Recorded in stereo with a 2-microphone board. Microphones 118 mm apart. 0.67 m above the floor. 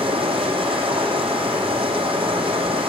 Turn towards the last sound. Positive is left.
turn(degrees=-50)  # may be behind; listen again after turning